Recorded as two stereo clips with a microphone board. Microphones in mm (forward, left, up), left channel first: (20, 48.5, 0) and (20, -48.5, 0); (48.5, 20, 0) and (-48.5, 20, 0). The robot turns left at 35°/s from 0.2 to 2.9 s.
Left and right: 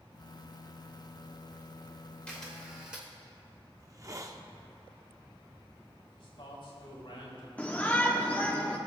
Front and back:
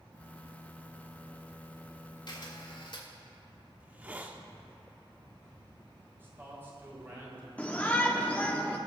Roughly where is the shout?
Ahead left.